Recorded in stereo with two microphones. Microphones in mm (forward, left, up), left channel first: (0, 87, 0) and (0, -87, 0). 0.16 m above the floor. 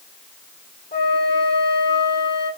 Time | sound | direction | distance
0.9 | a flute | 70° left (ahead or behind) | 4.5 m